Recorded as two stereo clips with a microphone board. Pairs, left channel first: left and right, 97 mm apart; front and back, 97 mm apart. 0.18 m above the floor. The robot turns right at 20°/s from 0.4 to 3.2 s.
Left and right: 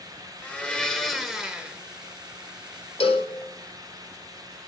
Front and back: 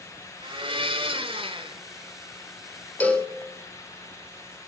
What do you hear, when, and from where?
0.4 s a blender: 165° left, 0.9 m; by 1.8 s 170° right, 0.9 m
3.0 s a cowbell: 75° left, 1.0 m; by 3.3 s 80° left, 1.0 m